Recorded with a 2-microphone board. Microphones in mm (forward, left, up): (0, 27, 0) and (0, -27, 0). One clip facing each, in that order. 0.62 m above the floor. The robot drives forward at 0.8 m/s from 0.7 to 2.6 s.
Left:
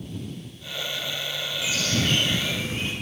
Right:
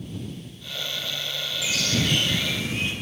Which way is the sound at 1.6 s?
40° left (ahead or behind).